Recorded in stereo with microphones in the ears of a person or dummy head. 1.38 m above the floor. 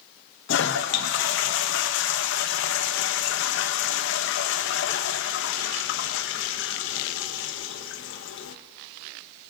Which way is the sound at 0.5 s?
65° left (ahead or behind).